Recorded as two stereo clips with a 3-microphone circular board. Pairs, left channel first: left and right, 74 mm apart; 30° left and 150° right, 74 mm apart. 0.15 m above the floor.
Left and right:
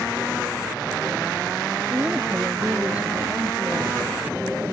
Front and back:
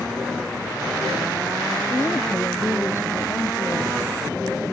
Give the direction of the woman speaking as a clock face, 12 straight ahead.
1 o'clock.